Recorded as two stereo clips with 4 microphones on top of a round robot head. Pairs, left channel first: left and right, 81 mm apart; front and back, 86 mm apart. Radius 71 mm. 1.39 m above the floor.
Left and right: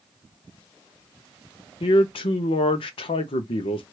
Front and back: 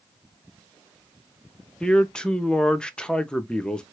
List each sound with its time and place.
1.8 s a man speaking: 80° left, 0.6 m